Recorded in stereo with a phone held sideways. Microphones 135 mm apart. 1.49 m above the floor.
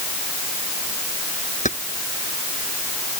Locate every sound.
1.6 s keys jangling: 65° left (ahead or behind)